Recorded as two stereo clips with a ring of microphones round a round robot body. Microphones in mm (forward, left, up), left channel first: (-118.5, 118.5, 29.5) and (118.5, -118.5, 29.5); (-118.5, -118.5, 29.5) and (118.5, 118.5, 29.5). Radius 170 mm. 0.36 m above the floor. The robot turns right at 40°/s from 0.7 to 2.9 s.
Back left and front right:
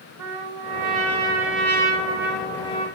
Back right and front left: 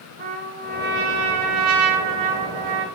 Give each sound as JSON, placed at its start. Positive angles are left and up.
{"t": 0.2, "sound": "a trumpet", "azimuth_deg": -20, "distance_m": 5.0}